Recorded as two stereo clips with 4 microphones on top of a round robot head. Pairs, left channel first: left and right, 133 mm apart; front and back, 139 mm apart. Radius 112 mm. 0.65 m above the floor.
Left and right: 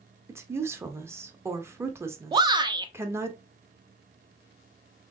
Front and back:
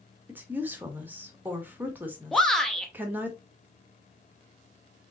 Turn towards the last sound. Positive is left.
turn(degrees=-85)